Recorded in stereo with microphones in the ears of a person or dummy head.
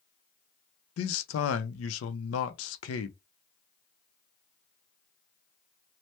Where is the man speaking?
85° left, 0.5 m.